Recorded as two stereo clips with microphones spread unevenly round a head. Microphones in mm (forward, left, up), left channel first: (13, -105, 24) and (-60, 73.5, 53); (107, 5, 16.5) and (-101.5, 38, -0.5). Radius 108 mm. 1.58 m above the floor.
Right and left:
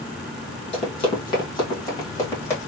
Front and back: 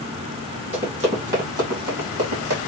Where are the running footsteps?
130° right, 2.5 m; by 2.6 s 150° right, 3 m.